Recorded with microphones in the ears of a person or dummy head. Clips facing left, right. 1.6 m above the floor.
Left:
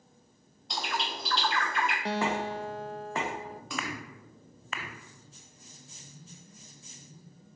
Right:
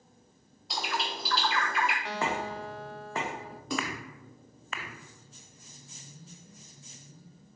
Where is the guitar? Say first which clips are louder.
Left 3 dB; 25° left (ahead or behind), 0.5 m.